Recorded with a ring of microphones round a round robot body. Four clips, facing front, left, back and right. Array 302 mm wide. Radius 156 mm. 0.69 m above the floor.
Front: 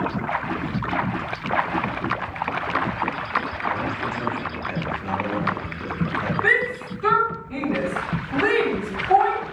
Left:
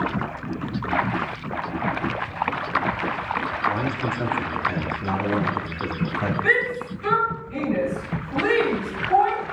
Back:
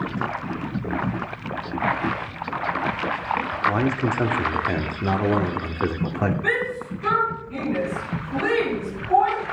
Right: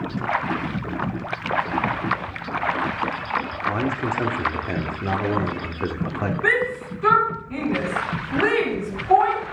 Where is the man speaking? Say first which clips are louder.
Right 2 dB, back 8 dB; 160° right, 1.8 m.